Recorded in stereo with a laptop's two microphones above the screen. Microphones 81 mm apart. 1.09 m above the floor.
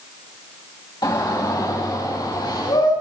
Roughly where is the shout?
Left.